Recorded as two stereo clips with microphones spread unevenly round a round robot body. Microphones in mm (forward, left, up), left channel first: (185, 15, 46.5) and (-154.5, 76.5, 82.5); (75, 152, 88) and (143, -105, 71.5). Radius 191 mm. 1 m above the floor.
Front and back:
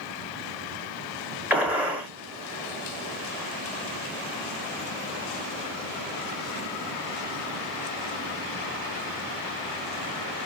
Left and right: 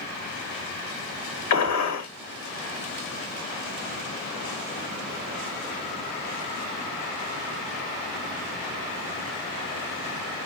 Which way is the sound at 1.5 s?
85° left.